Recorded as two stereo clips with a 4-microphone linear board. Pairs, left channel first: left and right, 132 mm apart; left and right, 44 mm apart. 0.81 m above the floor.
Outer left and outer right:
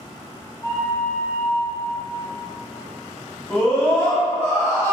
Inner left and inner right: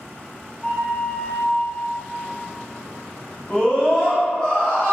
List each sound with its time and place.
0.6 s a flute: 40° left (ahead or behind), 1.0 m
3.5 s a scream: 10° left (ahead or behind), 1.3 m